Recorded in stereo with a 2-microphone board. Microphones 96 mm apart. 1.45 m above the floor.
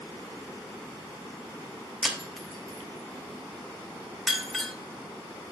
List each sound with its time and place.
2.0 s breaking glass: centre (ahead or behind), 0.9 m